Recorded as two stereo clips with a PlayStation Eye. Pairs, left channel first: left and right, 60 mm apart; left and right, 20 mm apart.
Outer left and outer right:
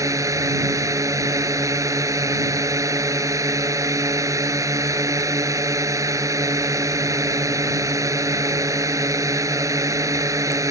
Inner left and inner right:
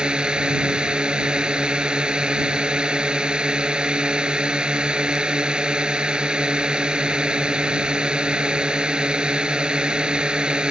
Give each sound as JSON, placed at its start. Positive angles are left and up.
{"t": 0.0, "sound": "a drone", "side_deg": -60}